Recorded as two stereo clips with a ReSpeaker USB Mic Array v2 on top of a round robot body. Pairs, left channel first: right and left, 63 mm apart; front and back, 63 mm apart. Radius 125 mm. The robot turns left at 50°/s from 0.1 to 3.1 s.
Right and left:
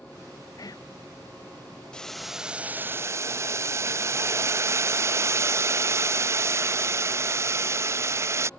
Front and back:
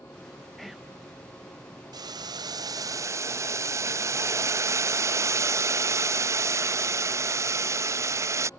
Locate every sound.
0.6 s whispering: 85° right; by 0.9 s 105° right
1.9 s boiling: 165° right; by 8.5 s 135° left